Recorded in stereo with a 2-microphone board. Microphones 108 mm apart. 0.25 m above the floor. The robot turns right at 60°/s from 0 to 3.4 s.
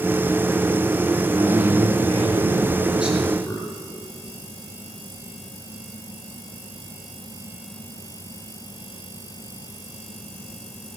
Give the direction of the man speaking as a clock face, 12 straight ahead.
4 o'clock.